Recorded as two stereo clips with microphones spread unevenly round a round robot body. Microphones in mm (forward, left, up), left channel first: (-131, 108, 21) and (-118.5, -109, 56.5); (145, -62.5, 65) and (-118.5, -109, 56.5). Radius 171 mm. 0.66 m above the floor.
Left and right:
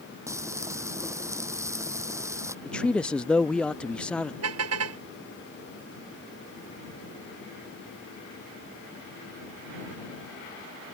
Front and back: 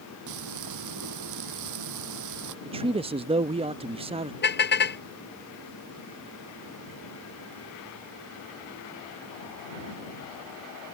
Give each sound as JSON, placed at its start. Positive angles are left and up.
{"t": 0.3, "sound": "frying", "azimuth_deg": -165}
{"t": 2.6, "sound": "a man speaking", "azimuth_deg": 155}
{"t": 4.4, "sound": "a car horn", "azimuth_deg": -40}